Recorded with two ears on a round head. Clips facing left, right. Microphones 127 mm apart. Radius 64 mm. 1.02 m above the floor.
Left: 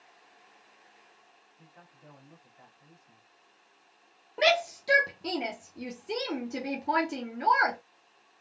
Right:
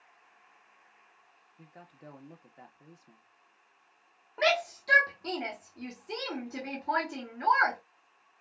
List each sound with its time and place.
1.6 s a man speaking: 55° right (ahead or behind), 1.0 m
4.4 s a shout: 25° left (ahead or behind), 0.7 m